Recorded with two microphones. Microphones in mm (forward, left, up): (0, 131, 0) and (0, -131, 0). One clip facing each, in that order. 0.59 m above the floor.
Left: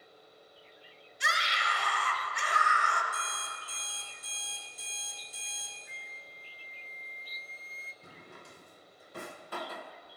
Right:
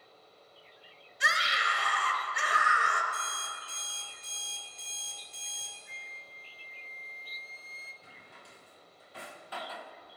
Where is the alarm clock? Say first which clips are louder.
Even; 5° left (ahead or behind), 3.5 m.